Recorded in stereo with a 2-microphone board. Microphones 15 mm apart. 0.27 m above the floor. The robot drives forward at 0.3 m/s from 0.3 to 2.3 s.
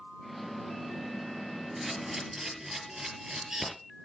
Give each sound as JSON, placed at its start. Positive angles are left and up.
{"t": 1.8, "sound": "a camera shutter", "side_deg": -35, "distance_m": 4.5}